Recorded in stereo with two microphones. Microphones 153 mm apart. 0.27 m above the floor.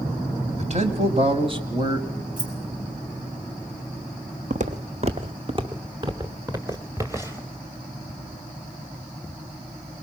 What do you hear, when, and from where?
0.6 s a man speaking: 50° right (ahead or behind), 1.9 m; by 2.1 s 25° right (ahead or behind), 1.4 m
2.4 s keys jangling: 50° right (ahead or behind), 6 m
4.5 s footsteps: 55° right (ahead or behind), 1.0 m; by 7.5 s 15° right (ahead or behind), 2.5 m